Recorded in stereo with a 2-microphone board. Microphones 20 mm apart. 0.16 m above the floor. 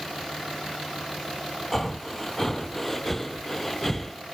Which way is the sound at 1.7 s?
10° left (ahead or behind).